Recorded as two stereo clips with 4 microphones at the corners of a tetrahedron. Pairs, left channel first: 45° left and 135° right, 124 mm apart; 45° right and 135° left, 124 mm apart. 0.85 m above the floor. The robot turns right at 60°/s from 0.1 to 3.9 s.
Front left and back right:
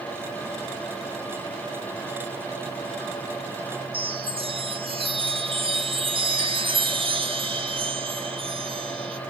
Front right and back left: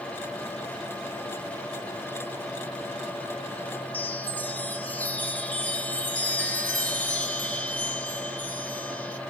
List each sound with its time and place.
3.9 s a chime: 115° right, 0.8 m